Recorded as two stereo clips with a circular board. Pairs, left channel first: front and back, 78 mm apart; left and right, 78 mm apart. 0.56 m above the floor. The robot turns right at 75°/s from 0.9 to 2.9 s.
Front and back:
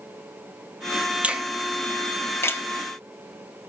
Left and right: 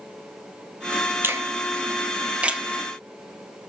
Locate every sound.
1.2 s a finger snap: 120° right, 0.5 m; by 2.6 s 15° right, 0.5 m